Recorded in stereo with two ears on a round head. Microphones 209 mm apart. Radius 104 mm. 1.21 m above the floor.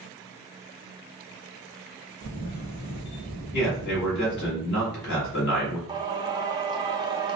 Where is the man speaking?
45° left (ahead or behind), 2 m.